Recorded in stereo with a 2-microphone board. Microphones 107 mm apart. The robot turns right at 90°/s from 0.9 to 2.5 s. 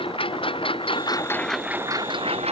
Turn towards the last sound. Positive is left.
turn(degrees=-95)